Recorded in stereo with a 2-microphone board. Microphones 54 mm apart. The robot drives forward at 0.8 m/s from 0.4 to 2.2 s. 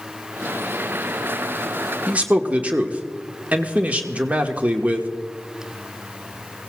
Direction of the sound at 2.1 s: 25° right (ahead or behind).